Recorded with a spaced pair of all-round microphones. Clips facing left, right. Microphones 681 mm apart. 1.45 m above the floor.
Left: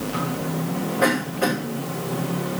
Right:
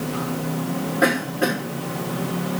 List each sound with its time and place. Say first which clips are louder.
1.0 s a cough: right 1 dB; 35° left (ahead or behind), 5.5 m